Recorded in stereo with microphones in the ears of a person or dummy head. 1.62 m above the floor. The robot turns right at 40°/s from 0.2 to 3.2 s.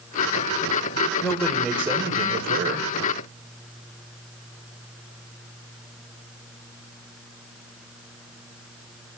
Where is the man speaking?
165° left, 1.5 m; by 2.9 s 130° right, 1.5 m.